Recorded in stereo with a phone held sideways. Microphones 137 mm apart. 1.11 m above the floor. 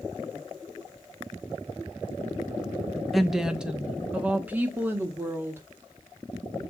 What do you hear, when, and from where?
3.1 s a woman speaking: centre (ahead or behind), 0.8 m; by 5.6 s 15° right (ahead or behind), 2 m